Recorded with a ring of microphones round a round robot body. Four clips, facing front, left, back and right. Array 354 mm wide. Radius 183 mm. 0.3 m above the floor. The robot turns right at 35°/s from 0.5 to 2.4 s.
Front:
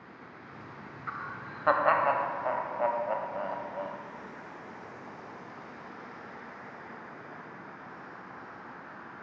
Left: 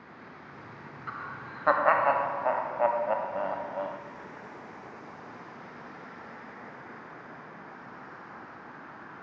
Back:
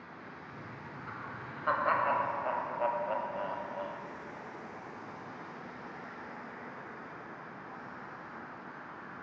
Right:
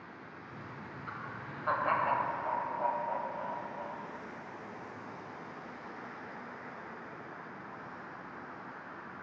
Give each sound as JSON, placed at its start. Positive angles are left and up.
{"t": 1.1, "sound": "laughter", "azimuth_deg": 30, "distance_m": 1.6}